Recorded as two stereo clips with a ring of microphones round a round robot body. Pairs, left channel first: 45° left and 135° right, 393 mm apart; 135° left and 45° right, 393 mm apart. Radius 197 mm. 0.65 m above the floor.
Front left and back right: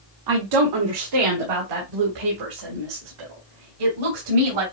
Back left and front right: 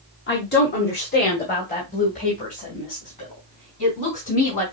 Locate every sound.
0.3 s a woman speaking: 165° right, 1.2 m; by 4.6 s 155° right, 4 m